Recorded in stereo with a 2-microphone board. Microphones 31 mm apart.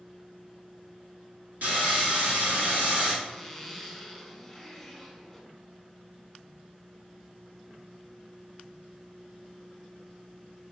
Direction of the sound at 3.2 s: Centre (ahead or behind).